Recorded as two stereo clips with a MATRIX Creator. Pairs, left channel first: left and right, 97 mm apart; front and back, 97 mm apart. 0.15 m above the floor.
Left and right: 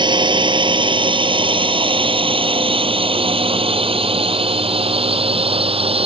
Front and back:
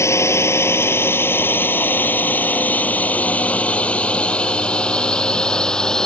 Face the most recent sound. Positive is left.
turn(degrees=-85)